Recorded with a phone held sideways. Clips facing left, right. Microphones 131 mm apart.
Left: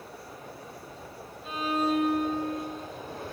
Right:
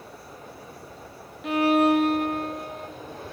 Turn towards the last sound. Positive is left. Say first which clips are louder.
# right 9 dB
turn(degrees=-75)  # may be behind; listen again after turning